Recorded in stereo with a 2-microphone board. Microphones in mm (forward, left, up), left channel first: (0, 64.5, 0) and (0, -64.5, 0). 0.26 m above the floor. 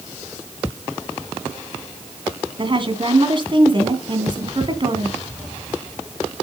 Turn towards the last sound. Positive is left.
turn(degrees=-40)  # may be behind; listen again after turning